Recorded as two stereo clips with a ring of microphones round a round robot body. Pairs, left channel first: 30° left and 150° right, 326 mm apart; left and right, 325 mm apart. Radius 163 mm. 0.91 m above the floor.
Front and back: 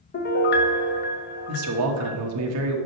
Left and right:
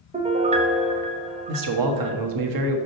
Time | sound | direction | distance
0.1 | a piano | 20° right | 0.8 m
1.5 | a man speaking | 110° right | 1.2 m